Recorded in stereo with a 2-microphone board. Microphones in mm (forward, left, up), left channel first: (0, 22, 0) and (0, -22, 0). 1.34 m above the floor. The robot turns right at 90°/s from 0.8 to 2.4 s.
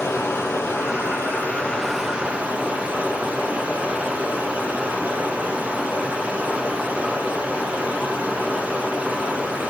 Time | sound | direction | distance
0.0 | running water | 80° left | 4.5 m